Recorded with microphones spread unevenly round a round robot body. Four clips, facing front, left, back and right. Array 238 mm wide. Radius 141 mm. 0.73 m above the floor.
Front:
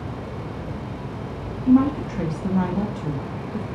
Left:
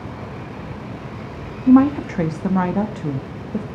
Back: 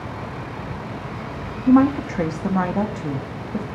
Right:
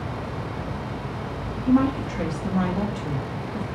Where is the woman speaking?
105° left, 1.0 m.